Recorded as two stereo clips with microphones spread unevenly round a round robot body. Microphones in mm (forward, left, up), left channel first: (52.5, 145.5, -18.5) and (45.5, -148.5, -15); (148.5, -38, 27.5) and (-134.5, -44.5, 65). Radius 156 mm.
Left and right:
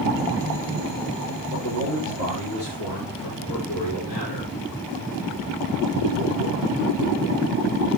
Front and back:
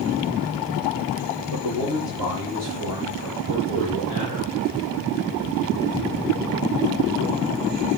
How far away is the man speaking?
About 6.5 m.